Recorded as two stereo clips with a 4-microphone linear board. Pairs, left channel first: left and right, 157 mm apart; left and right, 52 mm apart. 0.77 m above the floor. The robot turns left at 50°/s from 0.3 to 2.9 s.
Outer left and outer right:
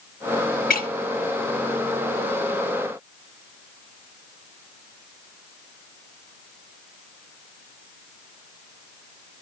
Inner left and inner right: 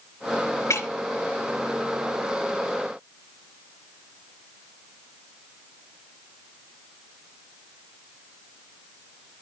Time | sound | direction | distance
0.7 | breaking glass | 65° left (ahead or behind) | 2.0 m